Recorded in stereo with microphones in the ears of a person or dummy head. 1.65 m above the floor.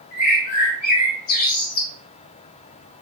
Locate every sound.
0.1 s a bird: 50° left (ahead or behind), 1.3 m